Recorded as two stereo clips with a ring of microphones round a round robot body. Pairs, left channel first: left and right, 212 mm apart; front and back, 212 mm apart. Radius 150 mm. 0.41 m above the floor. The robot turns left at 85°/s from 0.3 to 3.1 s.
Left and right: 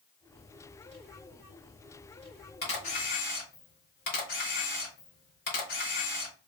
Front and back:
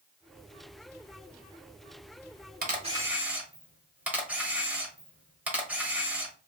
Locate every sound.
2.6 s a camera shutter: 140° left, 1.3 m; by 6.3 s 100° left, 1.3 m